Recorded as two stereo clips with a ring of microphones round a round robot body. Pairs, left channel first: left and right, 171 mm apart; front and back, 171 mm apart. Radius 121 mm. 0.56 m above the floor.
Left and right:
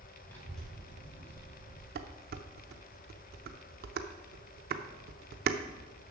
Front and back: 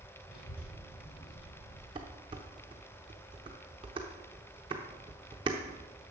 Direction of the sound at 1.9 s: 115° right.